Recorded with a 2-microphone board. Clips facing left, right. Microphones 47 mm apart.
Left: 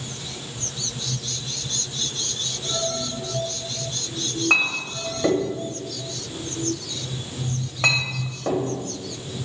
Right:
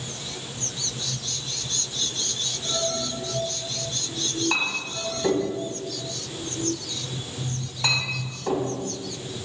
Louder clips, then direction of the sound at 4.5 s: Left 9 dB; 80° left.